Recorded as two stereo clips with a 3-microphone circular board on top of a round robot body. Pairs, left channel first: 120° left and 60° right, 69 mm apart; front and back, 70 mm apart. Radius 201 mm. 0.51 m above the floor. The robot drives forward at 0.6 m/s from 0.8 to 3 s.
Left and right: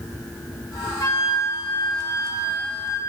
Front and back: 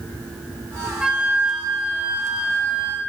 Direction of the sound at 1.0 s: 105° left.